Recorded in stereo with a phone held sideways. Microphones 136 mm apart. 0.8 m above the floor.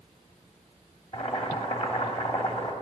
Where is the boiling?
45° left (ahead or behind), 1.9 m.